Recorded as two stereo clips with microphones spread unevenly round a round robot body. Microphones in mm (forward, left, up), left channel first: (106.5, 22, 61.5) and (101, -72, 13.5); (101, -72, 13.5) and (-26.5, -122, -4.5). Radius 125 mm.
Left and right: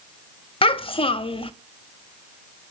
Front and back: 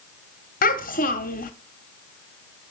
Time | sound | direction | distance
0.6 | a child speaking | 40° left | 0.6 m